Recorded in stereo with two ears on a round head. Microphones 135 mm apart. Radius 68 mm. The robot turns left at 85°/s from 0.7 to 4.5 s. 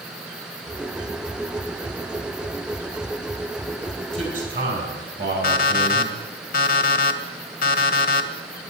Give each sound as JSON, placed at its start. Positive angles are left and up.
{"t": 4.1, "sound": "a man speaking", "azimuth_deg": 5, "distance_m": 4.0}
{"t": 5.4, "sound": "an alarm clock", "side_deg": 55, "distance_m": 1.2}